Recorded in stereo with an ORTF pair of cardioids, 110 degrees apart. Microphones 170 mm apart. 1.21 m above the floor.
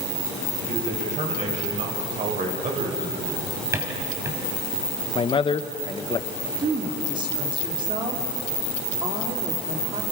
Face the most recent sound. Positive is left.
turn(degrees=-30)